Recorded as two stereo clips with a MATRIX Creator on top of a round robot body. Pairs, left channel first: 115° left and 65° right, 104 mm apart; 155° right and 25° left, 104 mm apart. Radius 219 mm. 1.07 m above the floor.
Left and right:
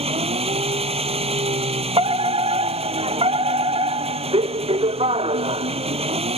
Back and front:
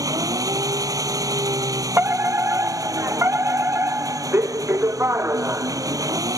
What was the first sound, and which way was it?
An engine running, 40° right.